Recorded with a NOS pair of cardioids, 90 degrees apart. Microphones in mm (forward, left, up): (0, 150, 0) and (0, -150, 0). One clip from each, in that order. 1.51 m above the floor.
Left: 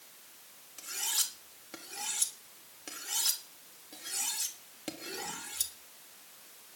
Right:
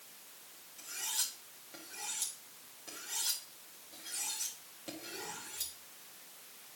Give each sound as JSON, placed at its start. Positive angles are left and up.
{"t": 0.8, "sound": "cutlery clinking", "azimuth_deg": 60, "distance_m": 3.5}